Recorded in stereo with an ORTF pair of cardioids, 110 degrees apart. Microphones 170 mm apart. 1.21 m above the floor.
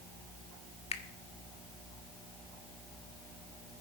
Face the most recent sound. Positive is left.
turn(degrees=35)